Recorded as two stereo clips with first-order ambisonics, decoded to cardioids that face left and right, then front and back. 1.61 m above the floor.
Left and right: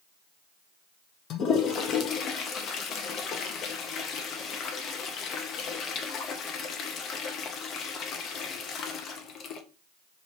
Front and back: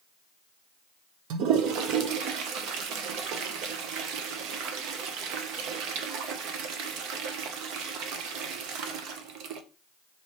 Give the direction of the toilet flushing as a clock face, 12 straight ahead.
7 o'clock.